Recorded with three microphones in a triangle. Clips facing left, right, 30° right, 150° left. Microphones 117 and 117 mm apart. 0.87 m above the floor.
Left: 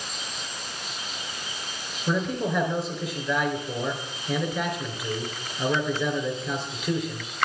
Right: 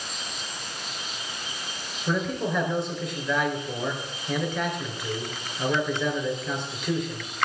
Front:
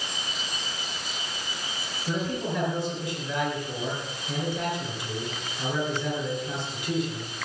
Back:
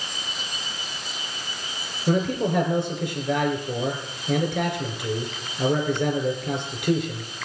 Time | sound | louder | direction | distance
2.1 | a man speaking | left 1 dB, back 7 dB | straight behind | 3.5 m